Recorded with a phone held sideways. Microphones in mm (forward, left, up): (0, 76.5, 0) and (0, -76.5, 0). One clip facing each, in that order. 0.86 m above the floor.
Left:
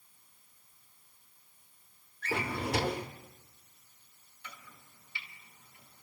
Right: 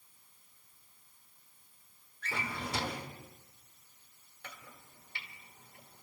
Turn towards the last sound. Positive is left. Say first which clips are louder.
# right 1 dB
turn(degrees=-55)  # may be behind; listen again after turning